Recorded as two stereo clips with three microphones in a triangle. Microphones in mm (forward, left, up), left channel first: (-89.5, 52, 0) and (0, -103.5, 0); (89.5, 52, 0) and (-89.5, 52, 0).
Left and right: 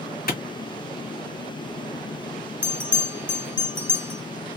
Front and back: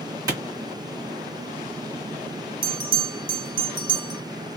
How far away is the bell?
About 1.1 m.